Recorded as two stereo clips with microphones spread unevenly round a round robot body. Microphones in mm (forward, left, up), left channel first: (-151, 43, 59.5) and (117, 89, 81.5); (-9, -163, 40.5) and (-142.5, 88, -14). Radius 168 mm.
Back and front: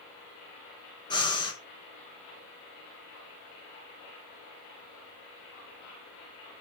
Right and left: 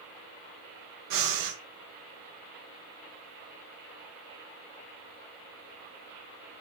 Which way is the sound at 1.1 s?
115° left.